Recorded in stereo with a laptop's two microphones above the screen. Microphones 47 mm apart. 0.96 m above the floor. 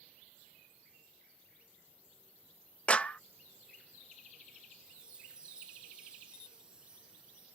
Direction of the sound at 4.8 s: 20° right (ahead or behind).